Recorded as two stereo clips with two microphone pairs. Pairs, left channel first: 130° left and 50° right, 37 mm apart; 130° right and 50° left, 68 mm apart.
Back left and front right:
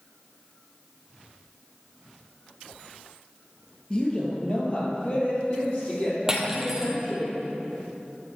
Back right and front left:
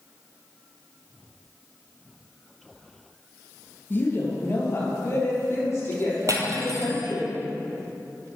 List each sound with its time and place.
3.9 s a woman speaking: 175° right, 2 m; by 7.3 s 175° left, 5 m
6.3 s cutlery clinking: 20° left, 1.4 m